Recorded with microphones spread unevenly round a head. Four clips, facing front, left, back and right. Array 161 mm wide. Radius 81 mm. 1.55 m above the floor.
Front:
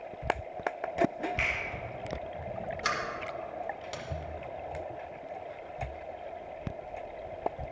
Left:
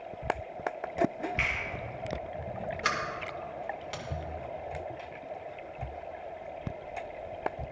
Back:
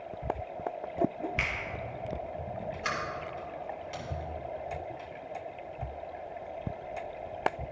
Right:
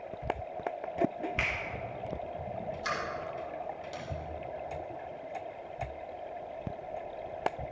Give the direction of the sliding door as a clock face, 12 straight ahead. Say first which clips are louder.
Left 3 dB, front 2 dB; 10 o'clock.